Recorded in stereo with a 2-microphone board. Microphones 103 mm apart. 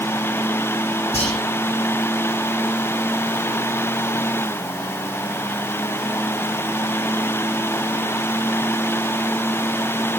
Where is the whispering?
85° left, 4 m.